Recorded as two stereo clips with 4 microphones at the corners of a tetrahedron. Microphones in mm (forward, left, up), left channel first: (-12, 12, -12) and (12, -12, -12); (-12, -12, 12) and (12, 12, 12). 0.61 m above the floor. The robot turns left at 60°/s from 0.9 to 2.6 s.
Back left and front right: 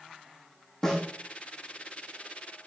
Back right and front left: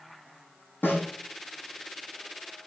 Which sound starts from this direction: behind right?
A snare drum, at 0.8 s.